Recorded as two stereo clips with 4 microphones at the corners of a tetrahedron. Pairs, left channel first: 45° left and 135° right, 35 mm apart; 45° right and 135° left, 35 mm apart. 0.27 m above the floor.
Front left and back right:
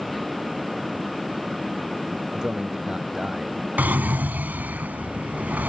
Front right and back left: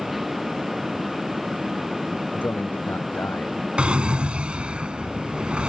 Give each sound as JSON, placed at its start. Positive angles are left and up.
{"t": 2.3, "sound": "a man speaking", "azimuth_deg": -70}
{"t": 3.8, "sound": "a drawer", "azimuth_deg": -170}